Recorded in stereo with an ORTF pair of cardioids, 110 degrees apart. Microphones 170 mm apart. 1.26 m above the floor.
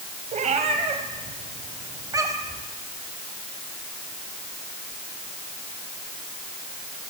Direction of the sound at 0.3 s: 45° right.